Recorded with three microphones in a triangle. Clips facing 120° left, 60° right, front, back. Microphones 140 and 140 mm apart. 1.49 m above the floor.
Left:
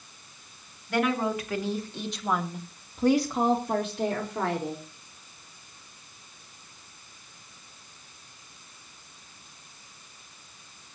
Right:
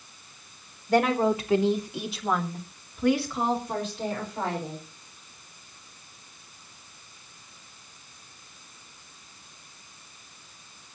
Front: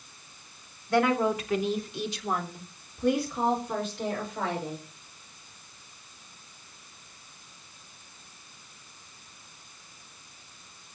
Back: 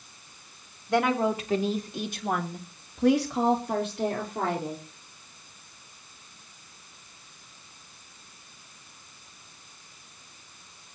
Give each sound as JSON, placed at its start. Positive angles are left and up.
{"t": 0.9, "sound": "a woman speaking", "azimuth_deg": -110, "distance_m": 2.5}